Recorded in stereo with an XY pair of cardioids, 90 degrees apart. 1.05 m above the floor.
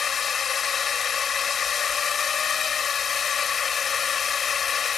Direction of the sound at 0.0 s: 55° left.